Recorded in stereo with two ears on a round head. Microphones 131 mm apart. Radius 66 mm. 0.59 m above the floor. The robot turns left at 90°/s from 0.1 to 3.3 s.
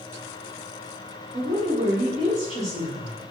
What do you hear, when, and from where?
1.3 s a woman speaking: 30° right (ahead or behind), 0.7 m; by 3.2 s 25° left (ahead or behind), 0.7 m